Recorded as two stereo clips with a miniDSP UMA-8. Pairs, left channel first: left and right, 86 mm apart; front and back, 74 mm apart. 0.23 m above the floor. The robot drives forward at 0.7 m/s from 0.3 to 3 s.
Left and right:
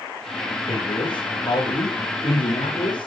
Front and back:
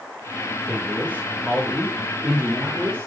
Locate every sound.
0.7 s a man speaking: 100° left, 8.5 m; by 3.1 s 110° left, 9 m